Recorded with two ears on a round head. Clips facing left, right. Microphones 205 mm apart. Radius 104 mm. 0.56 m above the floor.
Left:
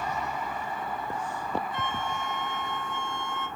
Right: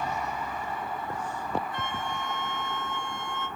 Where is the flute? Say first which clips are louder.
Left 1 dB; 20° left (ahead or behind), 3.5 m.